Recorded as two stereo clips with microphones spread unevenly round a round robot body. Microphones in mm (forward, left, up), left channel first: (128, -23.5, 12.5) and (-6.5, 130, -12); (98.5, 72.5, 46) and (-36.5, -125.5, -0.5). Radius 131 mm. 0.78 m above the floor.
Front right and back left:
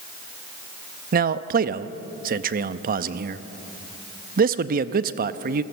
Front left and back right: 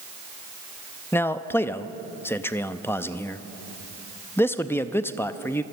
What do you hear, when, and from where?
1.1 s a man speaking: 145° left, 0.5 m